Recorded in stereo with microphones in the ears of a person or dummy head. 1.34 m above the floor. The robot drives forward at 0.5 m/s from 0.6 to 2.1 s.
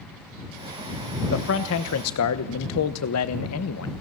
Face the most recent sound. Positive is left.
turn(degrees=85)